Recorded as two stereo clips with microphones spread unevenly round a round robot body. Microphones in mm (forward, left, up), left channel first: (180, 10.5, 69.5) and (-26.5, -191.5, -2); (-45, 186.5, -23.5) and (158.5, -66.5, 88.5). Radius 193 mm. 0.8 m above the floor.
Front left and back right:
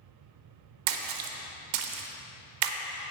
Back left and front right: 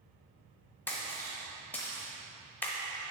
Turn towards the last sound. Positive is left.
turn(degrees=-135)